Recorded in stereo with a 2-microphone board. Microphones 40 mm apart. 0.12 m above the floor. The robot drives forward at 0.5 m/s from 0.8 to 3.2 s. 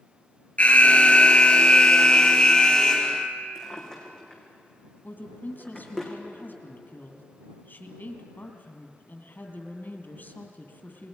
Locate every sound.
0.6 s an alarm: 35° left (ahead or behind), 1.4 m; by 3.3 s 20° left (ahead or behind), 2 m
3.5 s a drawer: 15° left (ahead or behind), 4 m
5.0 s a woman speaking: 55° left (ahead or behind), 2.5 m